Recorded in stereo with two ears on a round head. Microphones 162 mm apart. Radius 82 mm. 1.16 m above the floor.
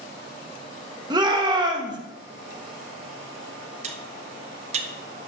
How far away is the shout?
About 1.0 m.